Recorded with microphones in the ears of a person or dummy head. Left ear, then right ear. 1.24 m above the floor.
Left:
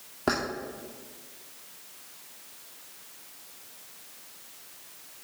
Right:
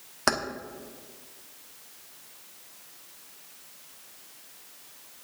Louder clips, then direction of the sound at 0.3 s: Right 2 dB; 60° right (ahead or behind).